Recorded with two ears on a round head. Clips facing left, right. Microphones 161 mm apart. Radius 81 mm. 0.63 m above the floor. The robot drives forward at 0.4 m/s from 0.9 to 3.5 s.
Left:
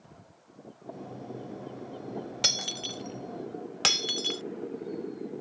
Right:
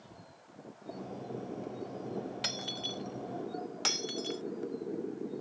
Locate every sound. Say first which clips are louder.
2.4 s breaking glass: left 2 dB; 50° left (ahead or behind); by 4.4 s 60° left (ahead or behind)